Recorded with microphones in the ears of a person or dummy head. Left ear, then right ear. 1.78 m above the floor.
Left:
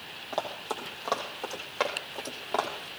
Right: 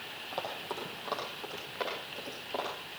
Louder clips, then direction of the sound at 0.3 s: Left 5 dB; 15° left (ahead or behind).